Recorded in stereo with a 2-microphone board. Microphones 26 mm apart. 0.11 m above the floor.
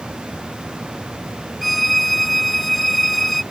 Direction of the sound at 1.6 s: 5° left (ahead or behind).